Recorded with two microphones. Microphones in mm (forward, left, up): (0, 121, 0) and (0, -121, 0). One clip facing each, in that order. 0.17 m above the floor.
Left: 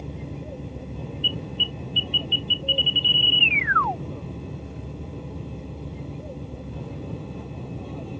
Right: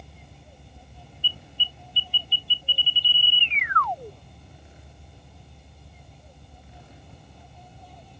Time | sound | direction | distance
0.0 | an aircraft | 70° left (ahead or behind) | ?
1.2 | an alarm | 45° right (ahead or behind) | ?